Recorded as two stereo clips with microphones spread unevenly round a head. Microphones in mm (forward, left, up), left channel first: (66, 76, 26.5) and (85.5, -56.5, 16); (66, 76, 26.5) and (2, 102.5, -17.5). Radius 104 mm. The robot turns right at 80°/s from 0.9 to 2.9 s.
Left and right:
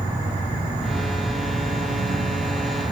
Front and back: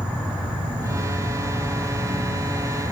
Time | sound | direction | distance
0.0 | an insect | straight behind | 1.7 m